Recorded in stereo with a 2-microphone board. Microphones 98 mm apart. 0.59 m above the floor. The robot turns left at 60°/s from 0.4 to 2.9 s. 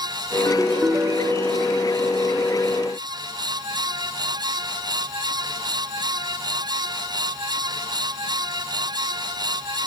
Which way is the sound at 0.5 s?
Straight ahead.